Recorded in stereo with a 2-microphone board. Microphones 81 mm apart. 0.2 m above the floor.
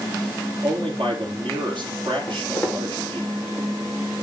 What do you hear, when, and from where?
0.6 s a man speaking: 70° right (ahead or behind), 3.5 m
2.3 s footsteps: 20° left (ahead or behind), 5 m